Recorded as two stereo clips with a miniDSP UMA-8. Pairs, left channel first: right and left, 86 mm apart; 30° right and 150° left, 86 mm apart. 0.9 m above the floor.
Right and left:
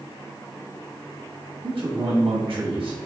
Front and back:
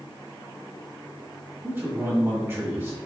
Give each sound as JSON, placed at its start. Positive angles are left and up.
{"t": 1.6, "sound": "a man speaking", "azimuth_deg": 95, "distance_m": 1.1}